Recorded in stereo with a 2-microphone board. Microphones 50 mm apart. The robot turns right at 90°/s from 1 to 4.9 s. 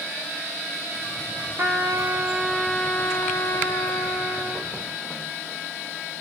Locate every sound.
1.6 s a trumpet: 85° right, 1.1 m; by 4.7 s 165° right, 1.1 m